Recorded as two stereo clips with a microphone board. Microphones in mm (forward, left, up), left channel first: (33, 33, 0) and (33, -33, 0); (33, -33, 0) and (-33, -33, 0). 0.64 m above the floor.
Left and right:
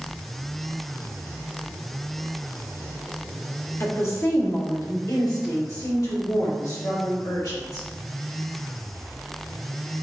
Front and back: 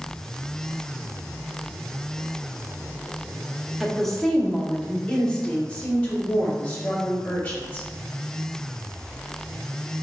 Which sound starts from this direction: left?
A woman speaking, at 3.8 s.